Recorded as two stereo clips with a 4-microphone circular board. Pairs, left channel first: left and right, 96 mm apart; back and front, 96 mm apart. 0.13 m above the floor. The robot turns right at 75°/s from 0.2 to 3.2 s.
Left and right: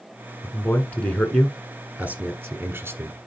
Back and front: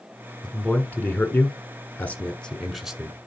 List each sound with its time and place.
0.4 s a man speaking: 100° left, 1.3 m; by 3.3 s 55° right, 1.3 m